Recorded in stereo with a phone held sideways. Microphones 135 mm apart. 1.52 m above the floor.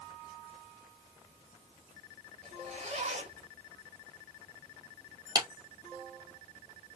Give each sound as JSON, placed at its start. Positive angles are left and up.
{"t": 2.4, "sound": "a zipper", "side_deg": -55, "distance_m": 2.0}
{"t": 5.3, "sound": "a clap", "side_deg": -30, "distance_m": 1.2}